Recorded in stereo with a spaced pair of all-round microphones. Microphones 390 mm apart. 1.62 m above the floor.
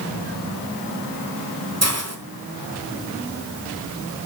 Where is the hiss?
40° right (ahead or behind), 1.7 m.